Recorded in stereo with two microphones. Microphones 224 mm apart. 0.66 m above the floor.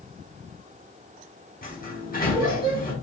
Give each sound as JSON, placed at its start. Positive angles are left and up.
{"t": 1.6, "sound": "a sliding door", "side_deg": 45, "distance_m": 3.5}